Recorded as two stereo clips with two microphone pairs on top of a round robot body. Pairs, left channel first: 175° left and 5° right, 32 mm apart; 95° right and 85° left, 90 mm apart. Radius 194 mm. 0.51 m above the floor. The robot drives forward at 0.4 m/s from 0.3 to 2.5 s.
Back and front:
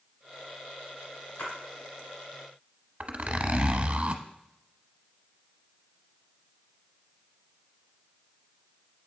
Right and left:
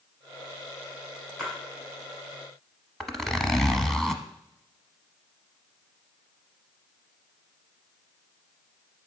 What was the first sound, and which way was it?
A splash, straight behind.